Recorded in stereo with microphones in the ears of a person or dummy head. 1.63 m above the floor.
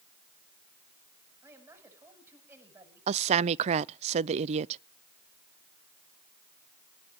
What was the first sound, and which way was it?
A man speaking, 15° right (ahead or behind).